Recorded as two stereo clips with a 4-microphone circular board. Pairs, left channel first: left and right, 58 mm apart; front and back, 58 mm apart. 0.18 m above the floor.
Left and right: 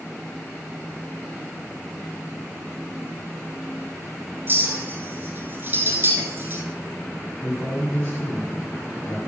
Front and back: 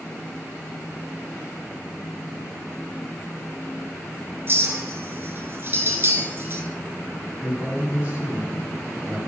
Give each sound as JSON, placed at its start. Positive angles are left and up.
{"t": 4.5, "sound": "a clink", "azimuth_deg": -135, "distance_m": 1.5}
{"t": 7.4, "sound": "a man speaking", "azimuth_deg": 130, "distance_m": 1.7}